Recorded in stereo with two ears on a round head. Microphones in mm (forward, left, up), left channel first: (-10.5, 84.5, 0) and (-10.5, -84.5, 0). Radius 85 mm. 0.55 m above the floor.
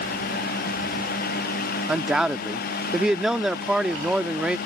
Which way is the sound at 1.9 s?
5° right (ahead or behind).